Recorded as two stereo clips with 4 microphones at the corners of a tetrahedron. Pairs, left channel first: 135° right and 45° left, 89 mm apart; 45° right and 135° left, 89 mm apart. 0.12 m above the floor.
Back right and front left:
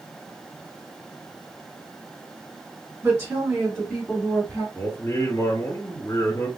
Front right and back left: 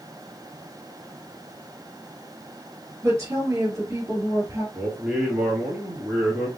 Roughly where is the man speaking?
Behind right.